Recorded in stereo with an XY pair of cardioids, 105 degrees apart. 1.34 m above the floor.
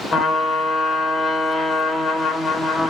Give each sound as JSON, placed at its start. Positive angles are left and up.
{"t": 0.1, "sound": "a trumpet", "azimuth_deg": 45, "distance_m": 3.0}